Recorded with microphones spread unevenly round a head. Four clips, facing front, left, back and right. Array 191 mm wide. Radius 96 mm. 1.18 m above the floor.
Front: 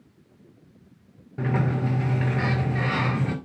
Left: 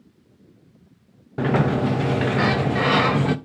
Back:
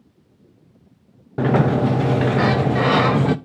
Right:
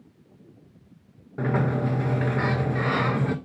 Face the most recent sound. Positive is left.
turn(degrees=150)